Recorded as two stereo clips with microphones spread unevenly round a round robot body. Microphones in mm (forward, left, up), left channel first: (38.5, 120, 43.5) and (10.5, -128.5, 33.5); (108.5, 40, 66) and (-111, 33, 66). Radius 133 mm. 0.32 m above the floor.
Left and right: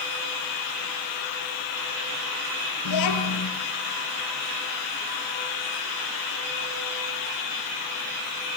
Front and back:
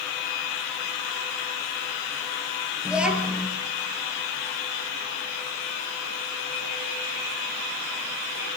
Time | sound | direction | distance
2.9 | a child speaking | 95° left | 4.5 m